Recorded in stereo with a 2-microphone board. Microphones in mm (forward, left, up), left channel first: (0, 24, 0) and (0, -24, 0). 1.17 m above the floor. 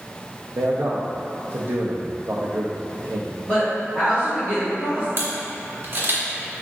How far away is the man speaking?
About 0.6 m.